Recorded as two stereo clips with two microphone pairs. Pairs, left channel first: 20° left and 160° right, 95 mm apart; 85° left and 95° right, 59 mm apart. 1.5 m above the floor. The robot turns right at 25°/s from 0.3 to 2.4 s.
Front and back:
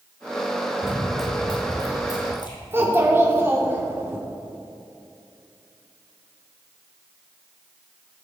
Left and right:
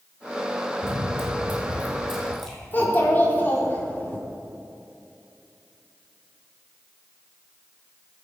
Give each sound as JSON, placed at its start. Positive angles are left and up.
{"t": 0.8, "sound": "running footsteps", "azimuth_deg": -110, "distance_m": 1.9}
{"t": 2.7, "sound": "a child speaking", "azimuth_deg": 140, "distance_m": 2.5}